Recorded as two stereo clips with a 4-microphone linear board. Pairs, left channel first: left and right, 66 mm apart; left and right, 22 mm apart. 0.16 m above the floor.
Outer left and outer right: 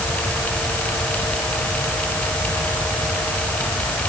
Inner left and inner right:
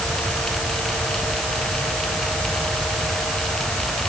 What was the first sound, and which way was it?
Only background noise.